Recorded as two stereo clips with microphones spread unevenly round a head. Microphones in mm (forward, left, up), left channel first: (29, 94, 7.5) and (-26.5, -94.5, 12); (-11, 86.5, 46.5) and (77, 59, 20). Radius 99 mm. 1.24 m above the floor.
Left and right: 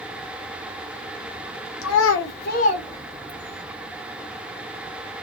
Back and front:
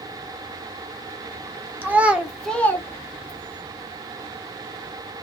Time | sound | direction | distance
1.8 | a child speaking | 60° left | 1.2 m